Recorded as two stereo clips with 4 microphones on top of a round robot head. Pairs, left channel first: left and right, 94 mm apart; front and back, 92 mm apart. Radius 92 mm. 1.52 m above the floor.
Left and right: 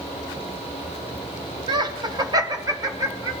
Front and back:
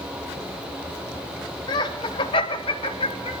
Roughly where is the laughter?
Ahead right.